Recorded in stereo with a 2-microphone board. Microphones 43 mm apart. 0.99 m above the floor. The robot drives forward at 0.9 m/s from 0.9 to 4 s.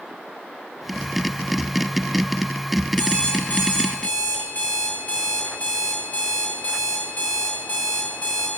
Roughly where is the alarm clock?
Left.